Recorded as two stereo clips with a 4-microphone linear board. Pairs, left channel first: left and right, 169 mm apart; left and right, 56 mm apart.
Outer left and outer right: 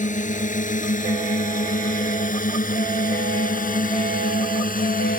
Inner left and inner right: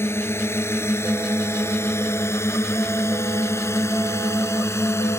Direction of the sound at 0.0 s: 50° left (ahead or behind).